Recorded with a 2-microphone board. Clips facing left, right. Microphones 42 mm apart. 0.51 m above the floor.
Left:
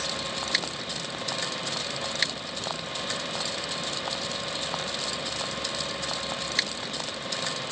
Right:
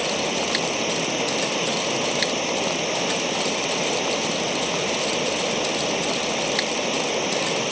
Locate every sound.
0.0 s running water: 80° right